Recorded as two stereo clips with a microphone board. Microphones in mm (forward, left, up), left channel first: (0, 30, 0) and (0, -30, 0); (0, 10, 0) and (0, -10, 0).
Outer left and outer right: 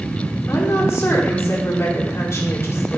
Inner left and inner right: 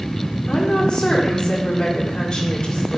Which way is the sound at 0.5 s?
55° left (ahead or behind).